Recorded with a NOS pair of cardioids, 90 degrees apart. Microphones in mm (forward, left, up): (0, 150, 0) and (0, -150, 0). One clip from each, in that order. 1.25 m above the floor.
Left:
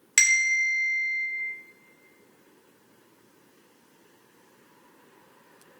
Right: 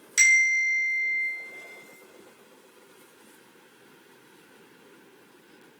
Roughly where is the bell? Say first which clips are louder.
Right 2 dB; ahead left.